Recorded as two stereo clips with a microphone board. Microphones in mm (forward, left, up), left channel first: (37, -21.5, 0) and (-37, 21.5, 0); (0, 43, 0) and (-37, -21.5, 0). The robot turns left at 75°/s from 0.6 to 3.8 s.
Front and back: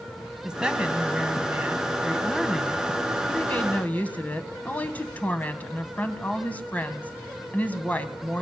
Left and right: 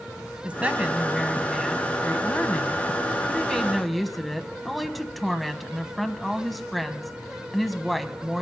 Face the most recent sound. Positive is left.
turn(degrees=-25)